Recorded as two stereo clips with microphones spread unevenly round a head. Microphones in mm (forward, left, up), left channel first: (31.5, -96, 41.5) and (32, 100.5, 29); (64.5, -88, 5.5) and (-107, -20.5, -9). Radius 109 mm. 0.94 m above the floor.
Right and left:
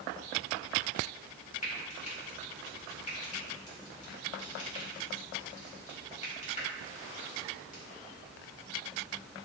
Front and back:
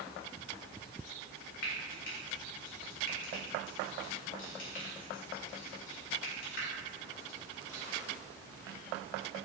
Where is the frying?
35° right, 2.5 m.